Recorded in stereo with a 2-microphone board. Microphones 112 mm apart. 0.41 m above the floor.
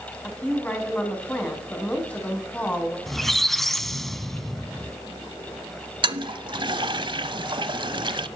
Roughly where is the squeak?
Centre.